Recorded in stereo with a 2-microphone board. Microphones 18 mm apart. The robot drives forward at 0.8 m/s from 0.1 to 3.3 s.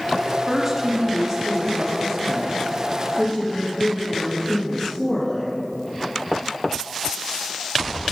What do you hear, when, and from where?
0.5 s a woman speaking: 20° right (ahead or behind), 1.2 m; by 5.6 s 10° right (ahead or behind), 1.9 m